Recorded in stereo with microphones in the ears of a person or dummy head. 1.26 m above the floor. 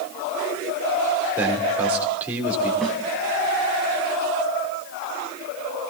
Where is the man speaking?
10° right (ahead or behind), 4 m.